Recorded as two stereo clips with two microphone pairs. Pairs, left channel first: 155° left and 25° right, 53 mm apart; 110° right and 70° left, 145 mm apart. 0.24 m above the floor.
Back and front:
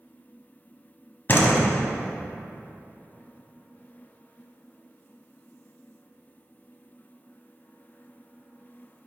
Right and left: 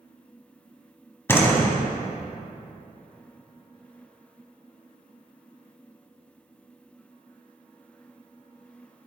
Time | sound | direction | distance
1.3 | a door slam | 175° right | 1.2 m